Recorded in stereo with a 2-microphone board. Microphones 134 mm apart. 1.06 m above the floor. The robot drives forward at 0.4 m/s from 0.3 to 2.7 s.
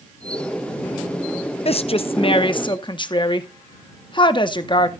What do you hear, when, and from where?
1.6 s a woman speaking: 50° left (ahead or behind), 0.7 m; by 4.9 s 35° left (ahead or behind), 0.8 m